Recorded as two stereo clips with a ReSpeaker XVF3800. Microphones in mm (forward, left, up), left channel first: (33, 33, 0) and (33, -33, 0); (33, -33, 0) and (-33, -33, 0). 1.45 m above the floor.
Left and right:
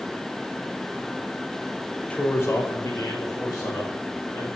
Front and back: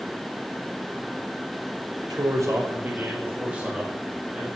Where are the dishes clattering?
No dishes clattering in this recording.